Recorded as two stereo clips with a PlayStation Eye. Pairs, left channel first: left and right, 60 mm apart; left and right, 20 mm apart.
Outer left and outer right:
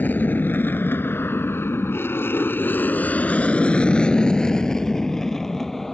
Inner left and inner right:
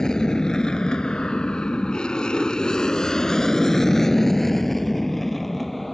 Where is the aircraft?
30° left (ahead or behind); by 6.0 s 5° left (ahead or behind).